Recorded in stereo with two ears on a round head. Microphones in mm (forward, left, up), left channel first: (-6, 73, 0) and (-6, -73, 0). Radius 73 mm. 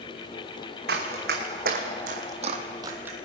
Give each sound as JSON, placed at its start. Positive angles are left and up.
{"t": 0.9, "sound": "running footsteps", "side_deg": -75, "distance_m": 3.5}